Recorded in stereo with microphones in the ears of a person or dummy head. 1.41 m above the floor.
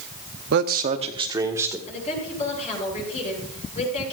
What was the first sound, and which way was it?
A man speaking, 60° right (ahead or behind).